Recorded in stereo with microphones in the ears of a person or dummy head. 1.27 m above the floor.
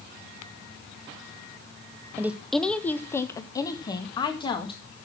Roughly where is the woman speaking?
Centre.